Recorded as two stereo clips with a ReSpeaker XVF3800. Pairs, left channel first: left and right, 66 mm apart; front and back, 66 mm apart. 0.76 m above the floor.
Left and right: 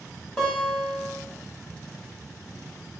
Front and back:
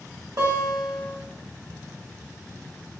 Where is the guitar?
170° left, 1.8 m.